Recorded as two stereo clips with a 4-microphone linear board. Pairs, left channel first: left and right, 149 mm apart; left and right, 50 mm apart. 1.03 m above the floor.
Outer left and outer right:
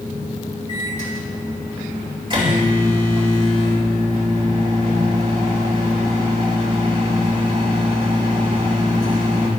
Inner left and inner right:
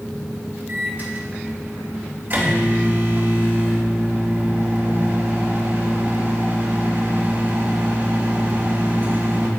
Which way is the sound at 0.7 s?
30° right (ahead or behind).